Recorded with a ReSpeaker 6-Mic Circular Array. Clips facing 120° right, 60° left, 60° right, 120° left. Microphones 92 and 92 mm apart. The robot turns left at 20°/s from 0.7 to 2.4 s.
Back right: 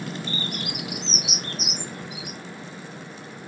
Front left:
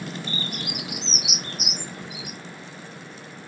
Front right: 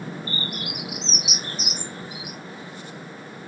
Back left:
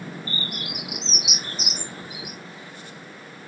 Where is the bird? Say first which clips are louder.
Back right 1 dB, front right 2 dB; straight ahead, 1.8 m; by 2.4 s 30° right, 1.8 m.